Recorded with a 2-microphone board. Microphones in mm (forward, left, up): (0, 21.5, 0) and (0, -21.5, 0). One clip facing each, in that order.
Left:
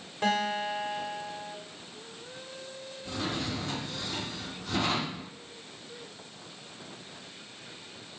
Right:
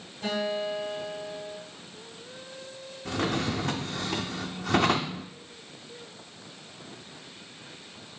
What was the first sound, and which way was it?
A guitar, 80° left.